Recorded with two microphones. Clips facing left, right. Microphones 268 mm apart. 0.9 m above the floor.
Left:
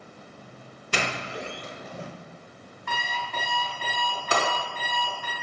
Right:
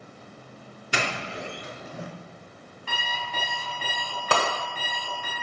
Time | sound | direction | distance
0.9 | a doorbell | 15° right (ahead or behind) | 3 m
2.9 | an alarm clock | 35° right (ahead or behind) | 4 m
4.3 | breaking glass | 70° right (ahead or behind) | 2 m